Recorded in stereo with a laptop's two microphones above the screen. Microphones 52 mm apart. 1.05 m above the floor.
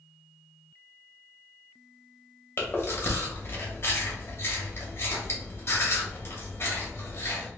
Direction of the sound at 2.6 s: 50° left (ahead or behind).